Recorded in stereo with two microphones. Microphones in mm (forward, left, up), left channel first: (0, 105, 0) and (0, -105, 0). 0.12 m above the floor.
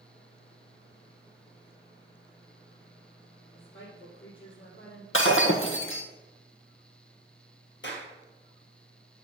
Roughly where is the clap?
Left.